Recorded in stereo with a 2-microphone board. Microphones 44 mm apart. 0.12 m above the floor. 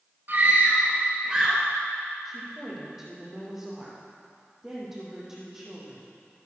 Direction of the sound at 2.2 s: 10° right (ahead or behind).